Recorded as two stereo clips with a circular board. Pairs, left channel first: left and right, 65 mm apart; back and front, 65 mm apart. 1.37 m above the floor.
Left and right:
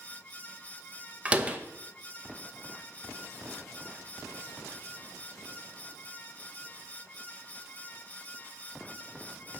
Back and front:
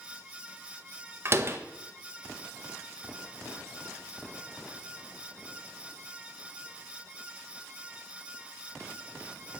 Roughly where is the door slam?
Ahead right.